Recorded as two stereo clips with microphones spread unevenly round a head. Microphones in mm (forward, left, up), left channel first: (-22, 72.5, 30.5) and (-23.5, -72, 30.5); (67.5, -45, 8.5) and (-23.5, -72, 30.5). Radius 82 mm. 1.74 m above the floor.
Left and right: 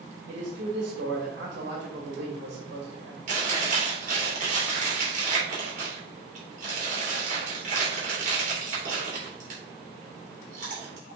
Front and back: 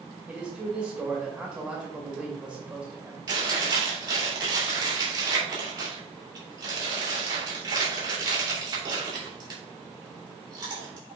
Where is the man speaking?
95° right, 2 m.